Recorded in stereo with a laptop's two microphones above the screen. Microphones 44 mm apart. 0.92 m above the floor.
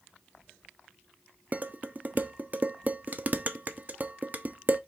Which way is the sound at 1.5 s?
40° right (ahead or behind).